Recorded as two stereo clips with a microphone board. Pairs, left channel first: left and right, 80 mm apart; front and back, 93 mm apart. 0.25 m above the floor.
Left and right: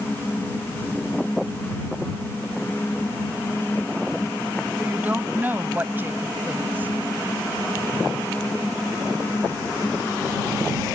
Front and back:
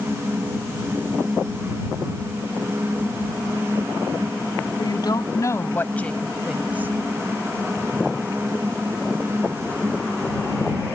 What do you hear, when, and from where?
4.8 s a woman speaking: 25° right; by 6.9 s 135° right